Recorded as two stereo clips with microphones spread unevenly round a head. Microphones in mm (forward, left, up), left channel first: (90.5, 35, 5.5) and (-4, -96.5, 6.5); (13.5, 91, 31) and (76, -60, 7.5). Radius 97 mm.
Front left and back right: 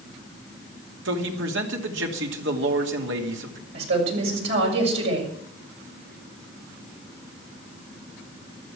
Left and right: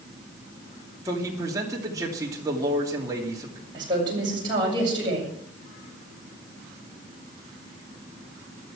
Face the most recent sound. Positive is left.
turn(degrees=-135)